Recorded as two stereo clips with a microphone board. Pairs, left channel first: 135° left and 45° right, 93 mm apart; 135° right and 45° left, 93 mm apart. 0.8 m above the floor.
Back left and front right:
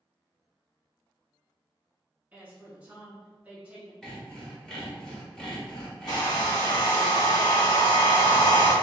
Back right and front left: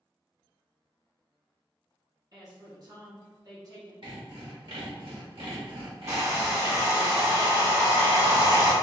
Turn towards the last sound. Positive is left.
turn(degrees=100)